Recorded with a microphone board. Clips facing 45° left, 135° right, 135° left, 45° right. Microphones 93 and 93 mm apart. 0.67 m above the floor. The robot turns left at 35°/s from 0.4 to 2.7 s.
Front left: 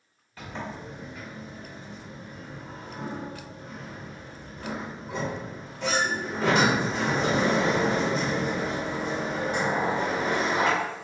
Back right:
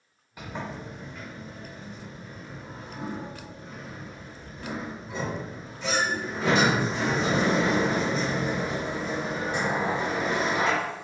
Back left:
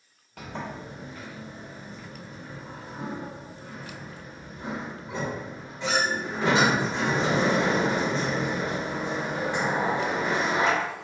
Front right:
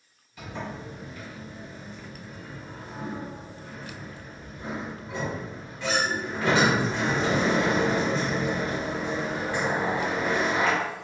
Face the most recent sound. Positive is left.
turn(degrees=70)